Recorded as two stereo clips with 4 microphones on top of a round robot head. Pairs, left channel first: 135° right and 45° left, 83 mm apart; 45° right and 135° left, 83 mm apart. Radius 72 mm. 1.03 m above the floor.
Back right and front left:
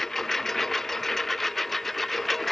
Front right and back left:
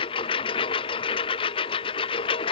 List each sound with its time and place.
0.0 s a lawn mower: 50° right